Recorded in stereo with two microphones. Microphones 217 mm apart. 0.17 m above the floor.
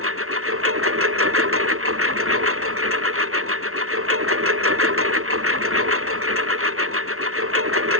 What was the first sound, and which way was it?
A lawn mower, 80° right.